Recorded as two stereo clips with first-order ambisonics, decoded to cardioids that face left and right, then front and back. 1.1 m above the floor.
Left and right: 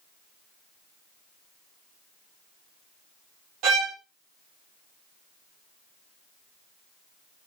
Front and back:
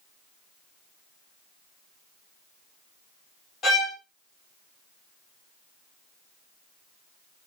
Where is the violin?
65° right, 1.4 m.